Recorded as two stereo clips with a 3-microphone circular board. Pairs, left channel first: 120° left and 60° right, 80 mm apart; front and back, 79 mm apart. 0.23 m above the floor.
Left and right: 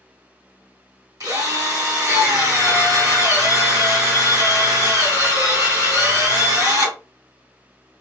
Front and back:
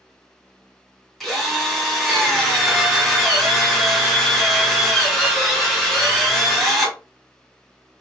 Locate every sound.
1.2 s a drill: 85° right, 2 m